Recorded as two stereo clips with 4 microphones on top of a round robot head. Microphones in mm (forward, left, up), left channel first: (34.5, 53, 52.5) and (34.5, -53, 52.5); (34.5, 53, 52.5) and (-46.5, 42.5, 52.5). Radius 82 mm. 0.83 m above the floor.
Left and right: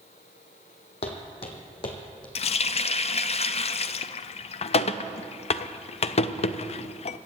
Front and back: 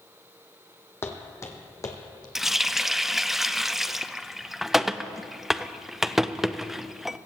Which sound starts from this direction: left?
A running tap, at 2.4 s.